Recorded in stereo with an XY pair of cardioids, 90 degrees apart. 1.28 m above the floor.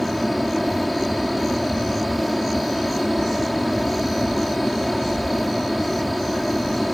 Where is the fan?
Straight ahead.